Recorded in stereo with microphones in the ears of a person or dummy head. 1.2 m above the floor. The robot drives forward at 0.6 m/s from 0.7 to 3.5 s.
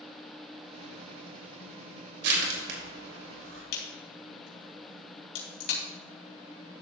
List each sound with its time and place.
2.2 s crushing: 65° right (ahead or behind), 2.5 m; by 3.6 s 75° right (ahead or behind), 2.5 m
3.7 s a crack: 70° left (ahead or behind), 3.5 m